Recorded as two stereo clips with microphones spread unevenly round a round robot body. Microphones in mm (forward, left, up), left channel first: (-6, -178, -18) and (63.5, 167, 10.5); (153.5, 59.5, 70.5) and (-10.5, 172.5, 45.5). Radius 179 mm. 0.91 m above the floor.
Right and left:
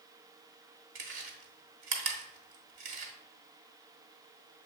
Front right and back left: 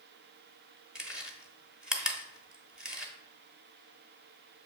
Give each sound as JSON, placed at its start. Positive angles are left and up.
{"t": 0.9, "sound": "chewing", "azimuth_deg": 55, "distance_m": 1.5}